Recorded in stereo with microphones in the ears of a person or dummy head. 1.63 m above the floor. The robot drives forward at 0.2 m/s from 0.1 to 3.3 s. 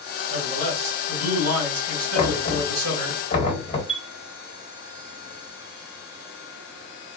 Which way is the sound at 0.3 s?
85° right.